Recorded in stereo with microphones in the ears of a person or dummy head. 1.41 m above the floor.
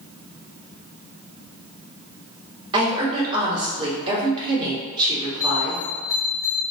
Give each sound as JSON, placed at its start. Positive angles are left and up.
{"t": 2.7, "sound": "a woman speaking", "side_deg": -25, "distance_m": 1.8}
{"t": 5.4, "sound": "a bell", "side_deg": 15, "distance_m": 1.1}